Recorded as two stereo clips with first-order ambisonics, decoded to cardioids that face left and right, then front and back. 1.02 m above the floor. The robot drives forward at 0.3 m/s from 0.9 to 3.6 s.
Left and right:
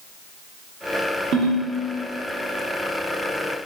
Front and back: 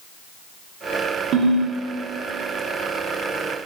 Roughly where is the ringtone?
Behind right.